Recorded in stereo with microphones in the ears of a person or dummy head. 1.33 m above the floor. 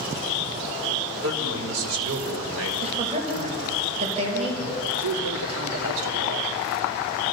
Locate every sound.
1.2 s a man speaking: 85° right, 4.5 m; by 2.7 s 90° right, 5 m
2.8 s a woman speaking: 35° right (ahead or behind), 5 m
5.0 s a man speaking: 80° right, 3 m